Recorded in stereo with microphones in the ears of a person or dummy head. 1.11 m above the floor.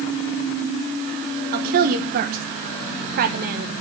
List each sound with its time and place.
1.5 s a woman speaking: 50° right (ahead or behind), 1.0 m